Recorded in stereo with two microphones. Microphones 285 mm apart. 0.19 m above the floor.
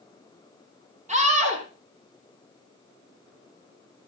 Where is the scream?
25° right (ahead or behind), 7 m.